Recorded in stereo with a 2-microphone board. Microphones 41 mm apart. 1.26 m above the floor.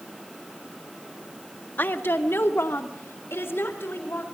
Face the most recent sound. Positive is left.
turn(degrees=75)  # may be behind; listen again after turning